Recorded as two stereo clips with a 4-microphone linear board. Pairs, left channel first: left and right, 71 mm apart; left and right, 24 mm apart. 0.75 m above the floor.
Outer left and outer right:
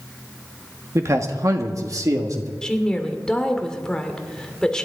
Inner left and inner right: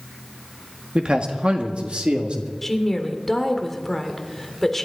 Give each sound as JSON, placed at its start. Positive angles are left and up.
{"t": 0.9, "sound": "a man speaking", "side_deg": -45, "distance_m": 1.4}
{"t": 2.6, "sound": "a woman speaking", "side_deg": 10, "distance_m": 1.8}